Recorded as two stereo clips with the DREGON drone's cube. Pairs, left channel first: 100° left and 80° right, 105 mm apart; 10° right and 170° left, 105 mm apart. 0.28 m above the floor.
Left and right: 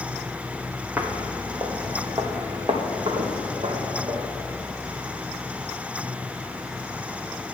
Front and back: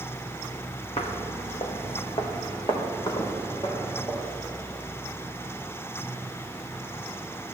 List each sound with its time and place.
1.0 s footsteps: 5° right, 1.4 m; by 4.3 s 65° right, 3 m